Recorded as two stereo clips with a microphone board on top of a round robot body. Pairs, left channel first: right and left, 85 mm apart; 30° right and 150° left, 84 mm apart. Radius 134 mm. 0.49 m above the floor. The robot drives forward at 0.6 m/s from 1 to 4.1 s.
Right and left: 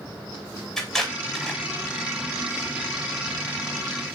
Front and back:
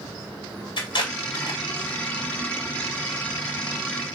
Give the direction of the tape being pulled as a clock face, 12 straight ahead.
12 o'clock.